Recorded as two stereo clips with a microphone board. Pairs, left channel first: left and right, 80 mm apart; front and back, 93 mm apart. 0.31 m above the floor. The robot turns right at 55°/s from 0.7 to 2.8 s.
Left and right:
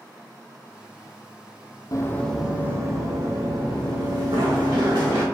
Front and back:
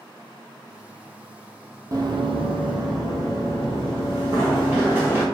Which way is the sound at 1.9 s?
130° left.